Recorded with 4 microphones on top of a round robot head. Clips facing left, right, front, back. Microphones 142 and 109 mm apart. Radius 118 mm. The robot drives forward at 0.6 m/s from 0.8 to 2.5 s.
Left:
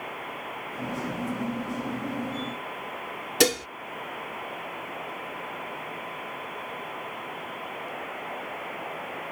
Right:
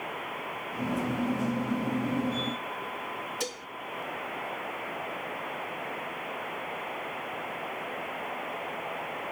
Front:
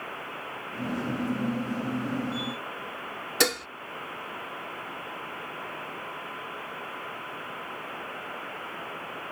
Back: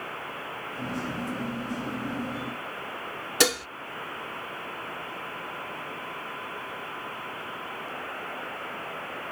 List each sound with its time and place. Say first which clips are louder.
3.4 s dishes clattering: left 13 dB, back 2 dB; 90° left